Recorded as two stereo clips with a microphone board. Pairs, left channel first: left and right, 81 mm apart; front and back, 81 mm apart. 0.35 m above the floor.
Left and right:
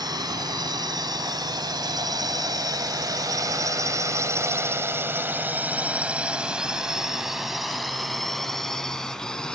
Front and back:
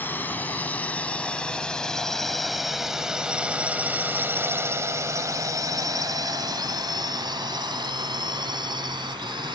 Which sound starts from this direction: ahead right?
A drone, at 0.0 s.